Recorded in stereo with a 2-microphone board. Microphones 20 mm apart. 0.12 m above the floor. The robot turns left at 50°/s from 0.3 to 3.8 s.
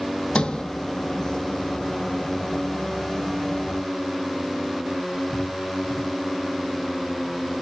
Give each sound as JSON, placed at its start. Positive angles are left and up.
{"t": 0.3, "sound": "a sliding door", "side_deg": 70, "distance_m": 0.8}